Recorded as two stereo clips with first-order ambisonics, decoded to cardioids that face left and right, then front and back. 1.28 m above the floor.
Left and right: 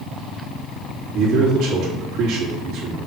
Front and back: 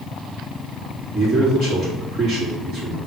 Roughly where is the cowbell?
I don't hear a cowbell.